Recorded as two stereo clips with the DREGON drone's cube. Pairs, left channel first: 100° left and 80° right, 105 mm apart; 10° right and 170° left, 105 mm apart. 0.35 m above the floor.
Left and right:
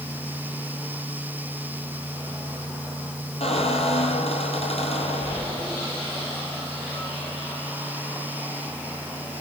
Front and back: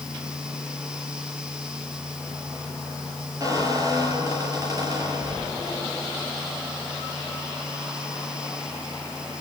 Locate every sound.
3.4 s a squeak: 115° left, 5.5 m